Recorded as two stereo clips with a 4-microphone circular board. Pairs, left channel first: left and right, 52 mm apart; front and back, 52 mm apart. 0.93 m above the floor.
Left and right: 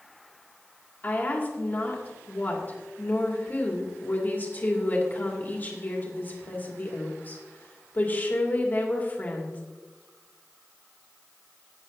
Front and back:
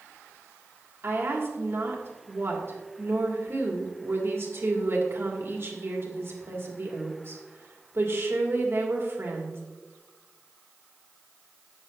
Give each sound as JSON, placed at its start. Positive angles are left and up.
{"t": 1.0, "sound": "a woman speaking", "azimuth_deg": 145, "distance_m": 2.5}